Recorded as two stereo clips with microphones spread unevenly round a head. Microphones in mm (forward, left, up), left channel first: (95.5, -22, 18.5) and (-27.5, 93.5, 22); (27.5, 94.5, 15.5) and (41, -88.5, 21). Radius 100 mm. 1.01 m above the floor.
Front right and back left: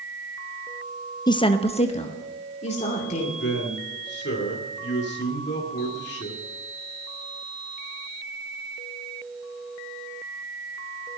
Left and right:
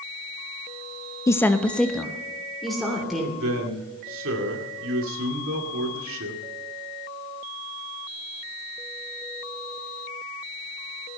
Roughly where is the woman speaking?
Ahead left.